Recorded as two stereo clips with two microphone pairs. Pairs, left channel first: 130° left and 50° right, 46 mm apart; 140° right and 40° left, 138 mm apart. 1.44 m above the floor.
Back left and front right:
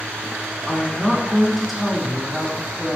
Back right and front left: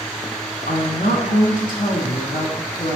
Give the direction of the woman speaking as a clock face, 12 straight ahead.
5 o'clock.